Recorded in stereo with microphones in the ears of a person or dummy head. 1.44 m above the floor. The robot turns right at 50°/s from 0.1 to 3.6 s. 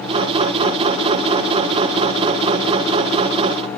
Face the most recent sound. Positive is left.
No sound to turn to.